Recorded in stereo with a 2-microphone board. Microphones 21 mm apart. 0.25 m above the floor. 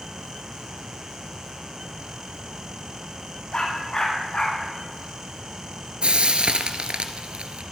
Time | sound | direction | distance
3.5 | a dog barking | 50° left (ahead or behind) | 5.5 m
6.0 | frying | 60° right (ahead or behind) | 1.2 m